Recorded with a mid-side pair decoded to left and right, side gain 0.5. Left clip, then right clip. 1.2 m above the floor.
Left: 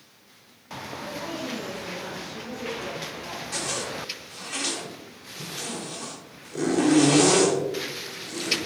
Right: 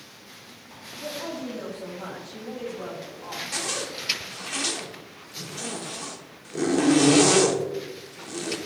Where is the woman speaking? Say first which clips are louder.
Right 1 dB; 30° right, 2.5 m; by 3.4 s 50° right, 4 m.